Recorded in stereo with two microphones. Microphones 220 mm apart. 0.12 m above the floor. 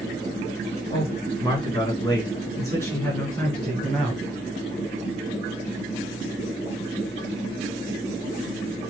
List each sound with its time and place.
0.9 s a man speaking: 20° left (ahead or behind), 2 m; by 4.2 s centre (ahead or behind), 1.9 m